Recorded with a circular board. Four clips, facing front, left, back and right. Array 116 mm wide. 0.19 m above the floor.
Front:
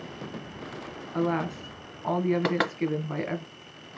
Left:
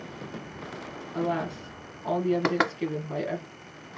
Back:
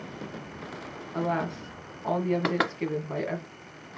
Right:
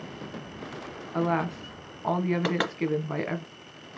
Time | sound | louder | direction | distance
1.1 | a woman speaking | right 2 dB, front 1 dB | 75° right | 1.5 m
2.4 | knocking | left 2 dB, front 1 dB | 95° left | 1.3 m